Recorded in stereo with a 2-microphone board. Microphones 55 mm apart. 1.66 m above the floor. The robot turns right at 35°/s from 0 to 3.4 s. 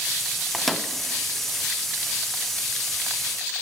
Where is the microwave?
Centre (ahead or behind), 0.8 m; by 0.9 s 10° left (ahead or behind), 0.8 m.